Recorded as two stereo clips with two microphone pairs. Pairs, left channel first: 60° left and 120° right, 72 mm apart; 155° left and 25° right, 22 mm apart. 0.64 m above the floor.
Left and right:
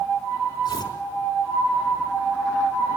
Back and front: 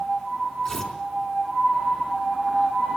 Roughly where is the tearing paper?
Left.